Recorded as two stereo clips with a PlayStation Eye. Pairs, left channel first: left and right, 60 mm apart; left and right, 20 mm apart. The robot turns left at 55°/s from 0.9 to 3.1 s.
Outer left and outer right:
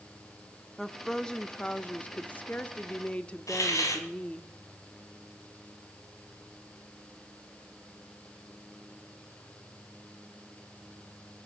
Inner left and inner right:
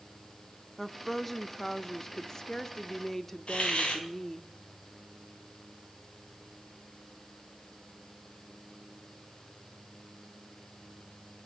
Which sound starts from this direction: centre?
A woman speaking, at 0.8 s.